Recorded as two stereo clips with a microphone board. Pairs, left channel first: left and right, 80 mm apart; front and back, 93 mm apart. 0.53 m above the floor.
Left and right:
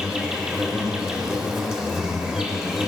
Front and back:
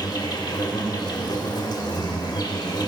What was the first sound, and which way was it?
An insect, 5° right.